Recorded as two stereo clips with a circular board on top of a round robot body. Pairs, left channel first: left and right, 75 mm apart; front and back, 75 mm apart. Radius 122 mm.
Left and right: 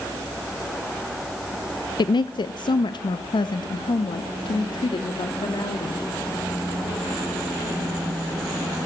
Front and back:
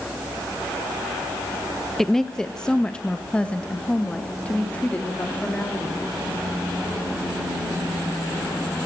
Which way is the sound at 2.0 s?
85° left.